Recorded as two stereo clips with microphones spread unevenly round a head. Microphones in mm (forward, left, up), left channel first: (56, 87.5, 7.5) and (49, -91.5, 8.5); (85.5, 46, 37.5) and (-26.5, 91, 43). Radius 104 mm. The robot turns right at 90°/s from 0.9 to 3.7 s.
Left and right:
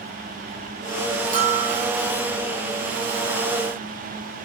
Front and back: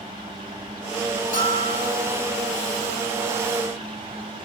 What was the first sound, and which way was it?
A bell, 50° right.